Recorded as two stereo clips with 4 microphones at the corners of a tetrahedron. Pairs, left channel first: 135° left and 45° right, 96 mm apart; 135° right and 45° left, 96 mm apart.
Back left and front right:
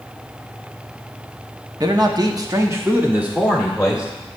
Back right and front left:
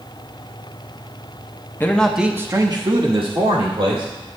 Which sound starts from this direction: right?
A man speaking, at 1.8 s.